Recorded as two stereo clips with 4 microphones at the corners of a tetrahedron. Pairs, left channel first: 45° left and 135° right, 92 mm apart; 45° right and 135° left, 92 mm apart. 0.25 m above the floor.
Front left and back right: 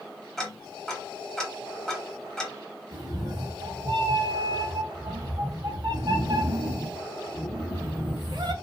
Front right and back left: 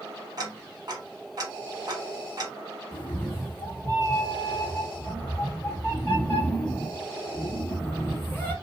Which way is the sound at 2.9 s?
105° right.